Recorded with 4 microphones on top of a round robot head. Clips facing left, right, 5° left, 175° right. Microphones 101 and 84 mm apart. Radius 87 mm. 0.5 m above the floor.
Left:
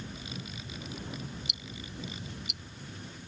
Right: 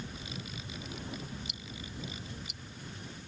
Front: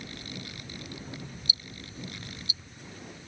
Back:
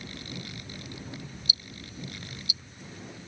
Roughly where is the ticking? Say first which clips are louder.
Left 1 dB, even; ahead left.